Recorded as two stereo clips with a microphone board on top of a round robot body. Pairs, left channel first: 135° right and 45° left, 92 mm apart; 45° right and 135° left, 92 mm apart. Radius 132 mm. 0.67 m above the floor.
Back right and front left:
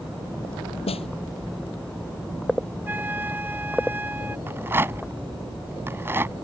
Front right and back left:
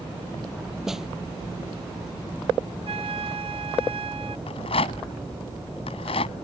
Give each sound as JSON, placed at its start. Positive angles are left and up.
{"t": 0.9, "sound": "a snare drum", "azimuth_deg": -140}
{"t": 2.9, "sound": "a flute", "azimuth_deg": 115}
{"t": 4.5, "sound": "a rattle", "azimuth_deg": -20}